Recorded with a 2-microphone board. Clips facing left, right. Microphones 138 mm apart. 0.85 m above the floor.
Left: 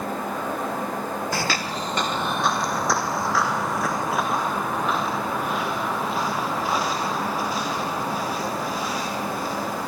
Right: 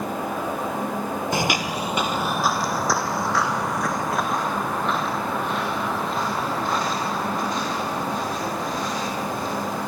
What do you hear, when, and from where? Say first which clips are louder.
1.3 s footsteps: right 3 dB; 20° right (ahead or behind), 0.9 m; by 9.9 s 5° left (ahead or behind), 9 m